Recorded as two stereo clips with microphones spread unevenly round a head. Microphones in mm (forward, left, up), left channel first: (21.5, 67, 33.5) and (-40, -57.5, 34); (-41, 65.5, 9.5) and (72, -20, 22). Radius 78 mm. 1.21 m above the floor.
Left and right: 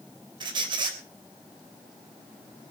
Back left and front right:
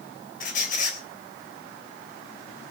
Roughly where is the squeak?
Behind.